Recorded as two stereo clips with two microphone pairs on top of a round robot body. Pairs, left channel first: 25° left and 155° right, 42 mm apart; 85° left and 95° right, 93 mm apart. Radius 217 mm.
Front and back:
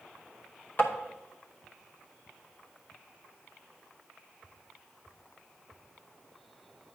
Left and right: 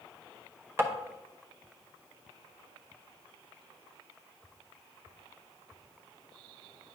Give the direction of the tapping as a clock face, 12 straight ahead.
1 o'clock.